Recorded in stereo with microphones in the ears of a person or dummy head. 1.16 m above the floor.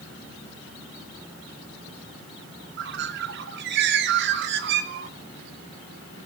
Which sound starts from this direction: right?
A bird, at 2.8 s.